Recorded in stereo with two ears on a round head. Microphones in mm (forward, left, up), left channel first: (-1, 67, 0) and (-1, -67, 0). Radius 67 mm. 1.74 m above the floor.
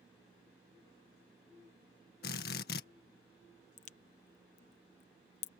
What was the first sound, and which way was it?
A drill, 75° left (ahead or behind).